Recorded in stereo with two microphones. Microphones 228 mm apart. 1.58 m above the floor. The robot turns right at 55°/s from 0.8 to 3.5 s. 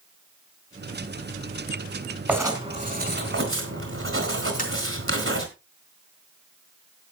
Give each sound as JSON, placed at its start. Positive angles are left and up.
{"t": 2.3, "sound": "writing", "azimuth_deg": -175, "distance_m": 3.5}
{"t": 4.6, "sound": "tapping", "side_deg": 35, "distance_m": 4.0}